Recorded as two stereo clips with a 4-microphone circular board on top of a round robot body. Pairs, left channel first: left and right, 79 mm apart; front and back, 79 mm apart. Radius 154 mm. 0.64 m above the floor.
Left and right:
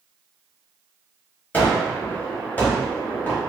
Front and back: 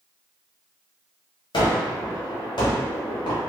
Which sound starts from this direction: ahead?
A gunshot, at 1.5 s.